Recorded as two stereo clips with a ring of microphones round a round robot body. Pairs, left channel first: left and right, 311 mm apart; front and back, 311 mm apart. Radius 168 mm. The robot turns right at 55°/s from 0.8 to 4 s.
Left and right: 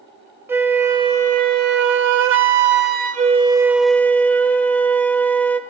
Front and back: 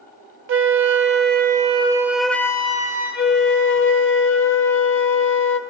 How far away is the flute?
About 0.8 m.